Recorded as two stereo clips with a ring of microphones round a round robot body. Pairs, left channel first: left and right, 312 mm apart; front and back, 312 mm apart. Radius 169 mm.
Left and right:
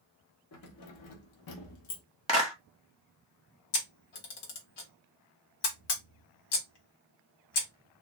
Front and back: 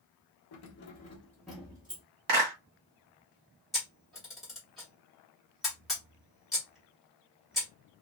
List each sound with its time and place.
0.5 s keys jangling: 40° left, 0.6 m; by 2.0 s 105° left, 1.0 m
2.3 s a clap: 160° left, 1.3 m
3.7 s a camera shutter: 90° left, 1.1 m